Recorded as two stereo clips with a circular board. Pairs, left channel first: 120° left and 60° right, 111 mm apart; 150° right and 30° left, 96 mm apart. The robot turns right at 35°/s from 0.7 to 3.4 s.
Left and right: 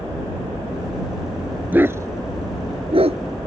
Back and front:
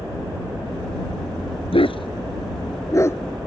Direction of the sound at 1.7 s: 135° right.